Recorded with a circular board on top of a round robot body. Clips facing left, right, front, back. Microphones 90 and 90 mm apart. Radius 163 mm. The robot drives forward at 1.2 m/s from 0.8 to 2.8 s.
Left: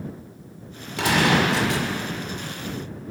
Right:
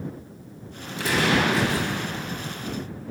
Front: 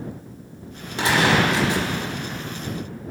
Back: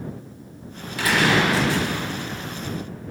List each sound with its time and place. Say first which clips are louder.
1.0 s a gunshot: left 2 dB, front 1 dB; 65° left, 6 m; by 1.9 s 75° left, 5.5 m